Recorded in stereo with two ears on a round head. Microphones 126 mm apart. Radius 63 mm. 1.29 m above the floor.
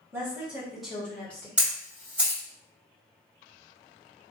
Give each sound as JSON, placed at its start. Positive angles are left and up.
{"t": 0.1, "sound": "a woman speaking", "side_deg": -20, "distance_m": 1.5}
{"t": 1.6, "sound": "a camera shutter", "side_deg": -10, "distance_m": 1.6}